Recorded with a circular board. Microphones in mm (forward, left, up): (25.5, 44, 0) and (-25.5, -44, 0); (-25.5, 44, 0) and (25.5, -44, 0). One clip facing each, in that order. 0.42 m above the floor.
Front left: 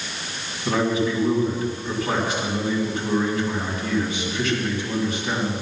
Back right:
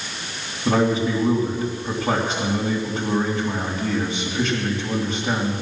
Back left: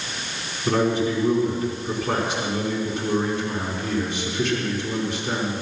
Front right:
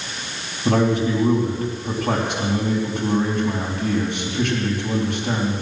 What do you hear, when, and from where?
0.7 s a man speaking: 60° right, 3.5 m